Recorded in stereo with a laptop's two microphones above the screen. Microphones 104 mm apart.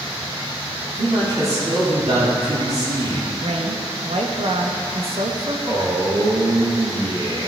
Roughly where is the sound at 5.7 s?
Right.